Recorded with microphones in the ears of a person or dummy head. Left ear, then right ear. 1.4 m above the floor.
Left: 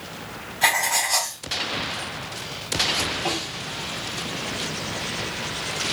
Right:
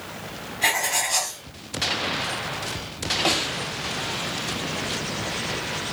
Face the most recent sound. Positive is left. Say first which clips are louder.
# right 4 dB
turn(degrees=-40)  # may be behind; listen again after turning